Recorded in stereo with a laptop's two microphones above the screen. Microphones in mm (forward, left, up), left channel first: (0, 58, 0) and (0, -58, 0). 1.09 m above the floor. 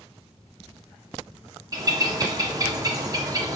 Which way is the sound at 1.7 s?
30° right (ahead or behind).